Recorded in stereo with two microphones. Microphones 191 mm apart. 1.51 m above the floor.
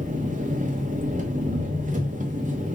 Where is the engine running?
45° right (ahead or behind), 0.7 m.